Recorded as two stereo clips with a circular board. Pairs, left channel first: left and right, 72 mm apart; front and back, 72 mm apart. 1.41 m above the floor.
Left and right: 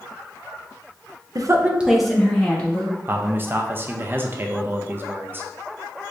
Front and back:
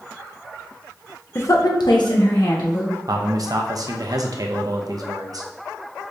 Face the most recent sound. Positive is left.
turn(degrees=-150)